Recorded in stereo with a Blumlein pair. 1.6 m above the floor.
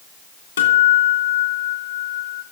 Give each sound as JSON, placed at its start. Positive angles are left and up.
{"t": 0.6, "sound": "a guitar", "azimuth_deg": 70, "distance_m": 3.0}